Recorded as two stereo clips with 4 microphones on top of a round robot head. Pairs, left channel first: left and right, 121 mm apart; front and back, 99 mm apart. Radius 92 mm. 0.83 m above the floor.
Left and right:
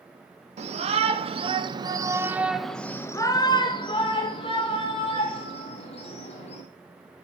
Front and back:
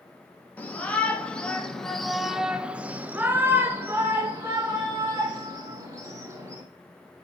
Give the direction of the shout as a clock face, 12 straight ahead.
3 o'clock.